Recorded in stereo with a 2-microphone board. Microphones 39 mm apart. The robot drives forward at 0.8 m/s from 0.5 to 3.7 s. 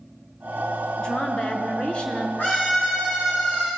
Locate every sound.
1.0 s a woman speaking: 25° left (ahead or behind), 1.8 m
2.4 s a scream: 50° left (ahead or behind), 4.5 m; by 3.7 s 45° left (ahead or behind), 5.5 m